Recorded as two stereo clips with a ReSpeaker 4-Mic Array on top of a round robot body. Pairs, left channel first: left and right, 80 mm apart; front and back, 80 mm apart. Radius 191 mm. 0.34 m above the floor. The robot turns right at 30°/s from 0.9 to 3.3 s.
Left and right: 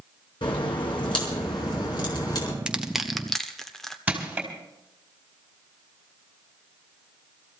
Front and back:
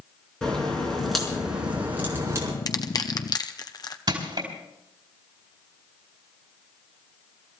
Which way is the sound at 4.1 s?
165° right.